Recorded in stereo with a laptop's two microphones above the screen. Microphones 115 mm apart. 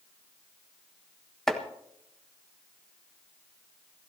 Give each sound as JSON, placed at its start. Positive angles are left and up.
{"t": 1.5, "sound": "chopping", "side_deg": 5, "distance_m": 1.6}